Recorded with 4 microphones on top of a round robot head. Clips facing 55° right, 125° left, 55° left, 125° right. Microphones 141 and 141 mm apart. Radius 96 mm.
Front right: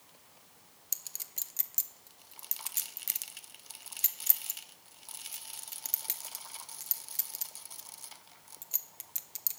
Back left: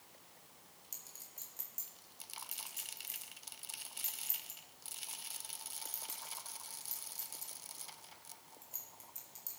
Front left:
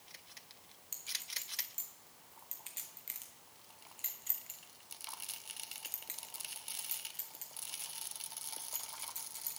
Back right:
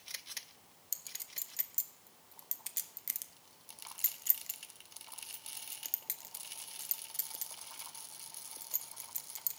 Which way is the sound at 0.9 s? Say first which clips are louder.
Front right 2 dB, front left 6 dB; 75° right.